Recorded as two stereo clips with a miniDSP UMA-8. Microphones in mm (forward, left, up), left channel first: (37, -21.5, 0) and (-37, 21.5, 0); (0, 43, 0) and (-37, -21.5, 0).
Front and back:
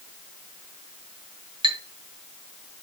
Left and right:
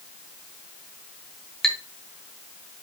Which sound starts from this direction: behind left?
A clink, at 1.6 s.